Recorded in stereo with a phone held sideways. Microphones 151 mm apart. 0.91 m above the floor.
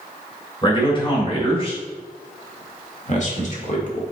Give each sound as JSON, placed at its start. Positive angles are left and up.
{"t": 0.6, "sound": "a man speaking", "side_deg": 35, "distance_m": 3.0}